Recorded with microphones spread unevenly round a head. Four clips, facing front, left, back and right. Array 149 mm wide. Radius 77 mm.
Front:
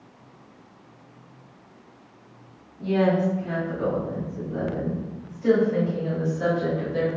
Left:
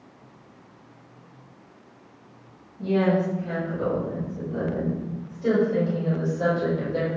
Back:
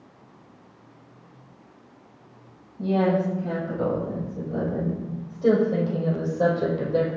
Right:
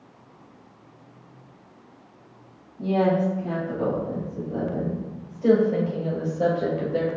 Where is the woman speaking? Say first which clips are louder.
Right 1 dB, front 1 dB; 145° right, 7.5 m; by 7.1 s 155° right, 4.5 m.